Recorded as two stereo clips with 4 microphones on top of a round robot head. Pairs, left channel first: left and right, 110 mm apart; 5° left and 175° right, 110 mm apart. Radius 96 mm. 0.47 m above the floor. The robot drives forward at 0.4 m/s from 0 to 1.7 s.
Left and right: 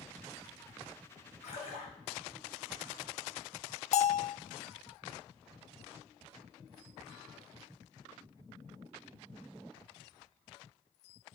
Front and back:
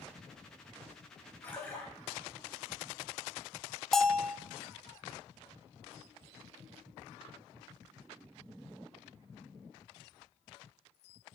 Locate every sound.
1.4 s a splash: 75° left, 2.5 m; by 1.9 s 80° left, 2.5 m
3.9 s a bell: 90° left, 0.6 m